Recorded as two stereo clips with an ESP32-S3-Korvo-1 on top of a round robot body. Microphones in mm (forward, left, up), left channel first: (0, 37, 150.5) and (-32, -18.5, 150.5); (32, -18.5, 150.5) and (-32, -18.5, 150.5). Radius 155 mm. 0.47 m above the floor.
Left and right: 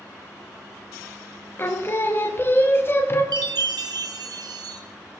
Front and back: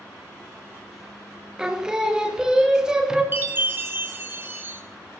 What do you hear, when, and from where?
1.6 s singing: 105° left, 0.8 m
3.3 s a chime: 120° right, 0.6 m